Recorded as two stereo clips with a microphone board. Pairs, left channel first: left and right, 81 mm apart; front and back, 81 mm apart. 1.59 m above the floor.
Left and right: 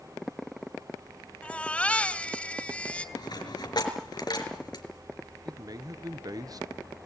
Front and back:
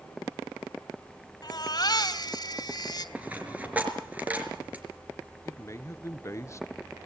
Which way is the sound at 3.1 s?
110° left.